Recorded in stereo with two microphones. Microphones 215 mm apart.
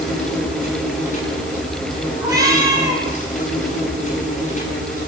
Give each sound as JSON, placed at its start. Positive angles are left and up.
{"t": 0.0, "sound": "an insect", "side_deg": 35, "distance_m": 7.5}
{"t": 2.2, "sound": "a cat meowing", "side_deg": -15, "distance_m": 6.0}